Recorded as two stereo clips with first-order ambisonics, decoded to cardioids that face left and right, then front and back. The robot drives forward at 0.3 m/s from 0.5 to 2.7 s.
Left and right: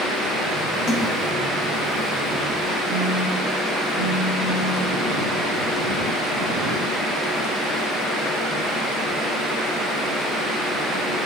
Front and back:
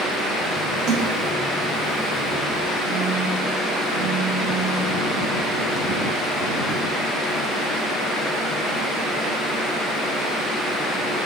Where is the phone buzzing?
45° left, 2.5 m.